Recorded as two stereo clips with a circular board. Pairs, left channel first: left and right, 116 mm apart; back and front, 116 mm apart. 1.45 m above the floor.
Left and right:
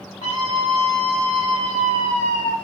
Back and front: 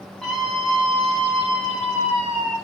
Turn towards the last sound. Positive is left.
turn(degrees=60)